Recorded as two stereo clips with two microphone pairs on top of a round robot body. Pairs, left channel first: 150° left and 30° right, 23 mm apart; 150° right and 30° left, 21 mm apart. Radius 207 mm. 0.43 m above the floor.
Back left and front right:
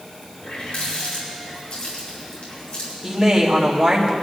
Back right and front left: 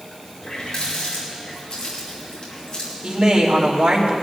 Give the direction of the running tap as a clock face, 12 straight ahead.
7 o'clock.